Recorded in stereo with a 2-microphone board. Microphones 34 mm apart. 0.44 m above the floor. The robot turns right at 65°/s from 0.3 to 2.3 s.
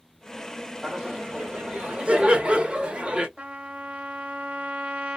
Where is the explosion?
I don't hear an explosion.